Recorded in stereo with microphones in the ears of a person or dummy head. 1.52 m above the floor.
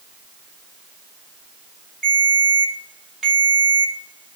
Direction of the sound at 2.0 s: 5° right (ahead or behind).